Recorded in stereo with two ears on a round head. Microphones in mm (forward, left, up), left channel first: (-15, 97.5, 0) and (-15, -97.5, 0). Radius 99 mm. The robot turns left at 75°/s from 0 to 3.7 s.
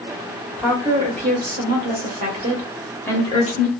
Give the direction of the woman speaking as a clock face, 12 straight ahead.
12 o'clock.